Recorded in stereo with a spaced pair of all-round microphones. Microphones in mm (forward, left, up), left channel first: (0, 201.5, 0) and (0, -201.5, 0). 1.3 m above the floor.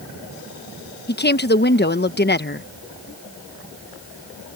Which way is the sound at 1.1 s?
25° left (ahead or behind).